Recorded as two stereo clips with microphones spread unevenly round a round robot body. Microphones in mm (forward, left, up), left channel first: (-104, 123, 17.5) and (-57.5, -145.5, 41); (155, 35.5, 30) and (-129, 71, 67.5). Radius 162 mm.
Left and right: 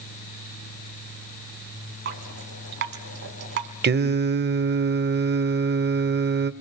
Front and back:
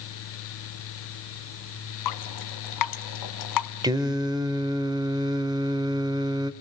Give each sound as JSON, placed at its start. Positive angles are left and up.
{"t": 2.0, "sound": "dripping", "azimuth_deg": -20, "distance_m": 1.3}
{"t": 3.8, "sound": "singing", "azimuth_deg": -110, "distance_m": 0.8}